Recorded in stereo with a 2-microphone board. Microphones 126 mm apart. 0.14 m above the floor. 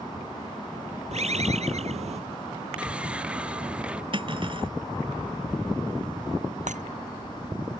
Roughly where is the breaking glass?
Right.